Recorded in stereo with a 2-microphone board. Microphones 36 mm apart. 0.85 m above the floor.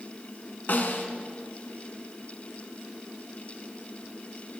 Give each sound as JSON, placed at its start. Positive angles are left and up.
{"t": 0.7, "sound": "a snare drum", "side_deg": 50, "distance_m": 1.5}